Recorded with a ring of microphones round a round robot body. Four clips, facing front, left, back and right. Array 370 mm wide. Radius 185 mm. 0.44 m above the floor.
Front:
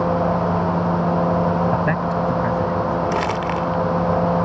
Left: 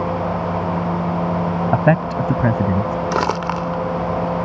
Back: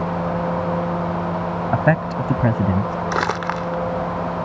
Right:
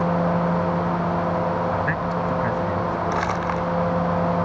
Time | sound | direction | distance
1.7 | a man speaking | 110° left | ?
3.1 | crumpling | 100° left | ?